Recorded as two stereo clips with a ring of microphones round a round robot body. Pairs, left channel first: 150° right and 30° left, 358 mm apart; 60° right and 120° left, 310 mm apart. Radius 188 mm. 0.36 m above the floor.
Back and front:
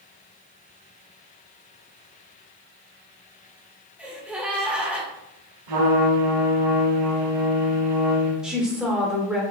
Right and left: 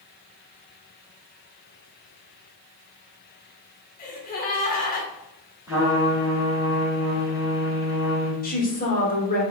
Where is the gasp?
55° right, 1.2 m.